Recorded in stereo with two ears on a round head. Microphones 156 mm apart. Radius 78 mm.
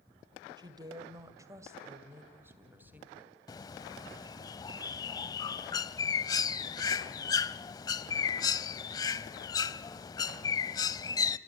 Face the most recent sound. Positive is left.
turn(degrees=20)  # may be behind; listen again after turning